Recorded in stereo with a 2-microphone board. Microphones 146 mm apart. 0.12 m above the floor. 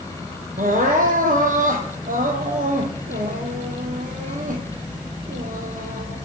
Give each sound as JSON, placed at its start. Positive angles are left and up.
{"t": 0.6, "sound": "crying", "side_deg": -75, "distance_m": 1.2}